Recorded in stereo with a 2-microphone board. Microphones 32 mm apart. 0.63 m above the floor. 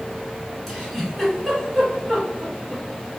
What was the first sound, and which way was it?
A giggle, 5° left (ahead or behind).